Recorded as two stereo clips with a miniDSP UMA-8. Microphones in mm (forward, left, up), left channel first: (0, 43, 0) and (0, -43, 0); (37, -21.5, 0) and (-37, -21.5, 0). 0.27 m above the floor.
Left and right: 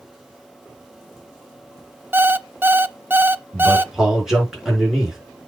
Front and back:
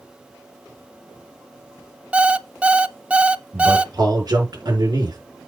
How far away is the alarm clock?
About 0.5 m.